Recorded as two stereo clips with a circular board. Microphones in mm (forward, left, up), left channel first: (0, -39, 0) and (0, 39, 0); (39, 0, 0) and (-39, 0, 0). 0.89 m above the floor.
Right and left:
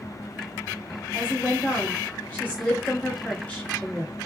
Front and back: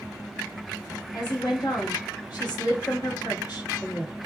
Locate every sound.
1.1 s a woman speaking: 20° right, 1.8 m